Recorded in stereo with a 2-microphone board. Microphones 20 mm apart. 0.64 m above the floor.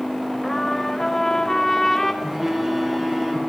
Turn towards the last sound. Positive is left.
turn(degrees=-15)  # may be behind; listen again after turning